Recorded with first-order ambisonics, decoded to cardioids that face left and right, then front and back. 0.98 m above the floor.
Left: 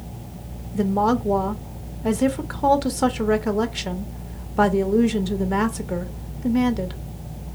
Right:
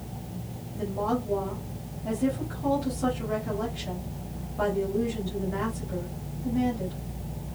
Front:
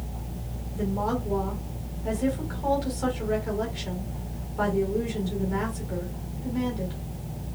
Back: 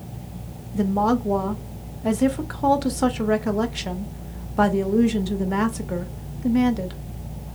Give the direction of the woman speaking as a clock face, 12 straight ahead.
8 o'clock.